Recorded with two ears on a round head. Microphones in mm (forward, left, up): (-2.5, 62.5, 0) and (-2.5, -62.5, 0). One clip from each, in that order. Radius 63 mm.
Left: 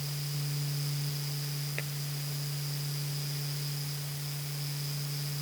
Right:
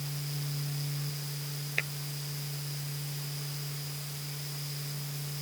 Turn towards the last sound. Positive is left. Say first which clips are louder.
# right 8 dB
turn(degrees=-50)  # may be behind; listen again after turning